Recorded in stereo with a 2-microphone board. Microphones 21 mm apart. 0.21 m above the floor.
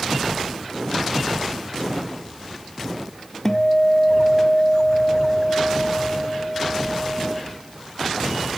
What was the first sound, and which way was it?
A guitar, 20° left (ahead or behind).